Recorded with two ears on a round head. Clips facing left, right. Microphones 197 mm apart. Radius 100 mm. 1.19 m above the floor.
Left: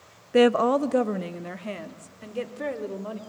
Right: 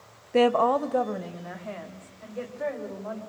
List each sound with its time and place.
0.3 s a woman speaking: 10° left (ahead or behind), 0.6 m; by 3.2 s 40° left (ahead or behind), 3.5 m